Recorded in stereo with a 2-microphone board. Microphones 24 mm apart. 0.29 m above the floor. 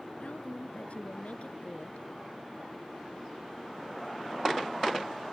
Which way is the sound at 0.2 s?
60° left (ahead or behind).